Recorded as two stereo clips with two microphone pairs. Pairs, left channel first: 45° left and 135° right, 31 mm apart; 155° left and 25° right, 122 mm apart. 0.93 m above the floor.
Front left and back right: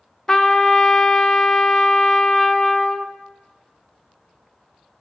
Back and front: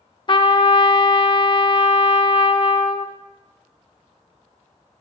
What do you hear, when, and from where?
0.3 s a trumpet: 115° left, 0.5 m